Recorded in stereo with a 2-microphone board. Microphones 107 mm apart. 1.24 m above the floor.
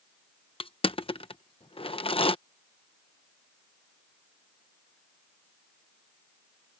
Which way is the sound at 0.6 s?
60° left (ahead or behind).